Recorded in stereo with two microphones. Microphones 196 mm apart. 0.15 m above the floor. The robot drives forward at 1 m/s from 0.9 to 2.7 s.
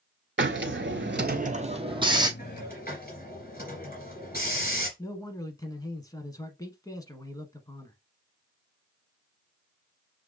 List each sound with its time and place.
0.4 s a hiss: 75° right (ahead or behind), 0.5 m; by 2.3 s 20° right (ahead or behind), 1.4 m
2.4 s a hiss: 45° left (ahead or behind), 3 m
5.0 s a man speaking: 20° left (ahead or behind), 1.0 m